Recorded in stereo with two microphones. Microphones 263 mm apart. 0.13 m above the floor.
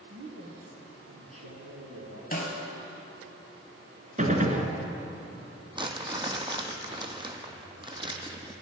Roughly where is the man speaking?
Right.